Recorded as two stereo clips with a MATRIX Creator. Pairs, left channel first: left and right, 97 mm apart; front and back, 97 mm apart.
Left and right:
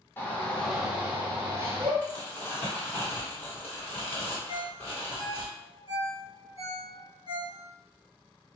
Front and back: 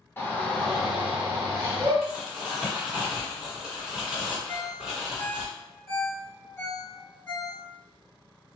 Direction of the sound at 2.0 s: 110° left.